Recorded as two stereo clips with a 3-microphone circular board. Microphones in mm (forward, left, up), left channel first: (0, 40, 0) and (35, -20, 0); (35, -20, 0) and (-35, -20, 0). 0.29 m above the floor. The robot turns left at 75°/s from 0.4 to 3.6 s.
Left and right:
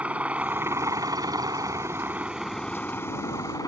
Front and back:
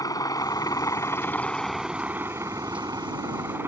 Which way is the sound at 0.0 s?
10° left.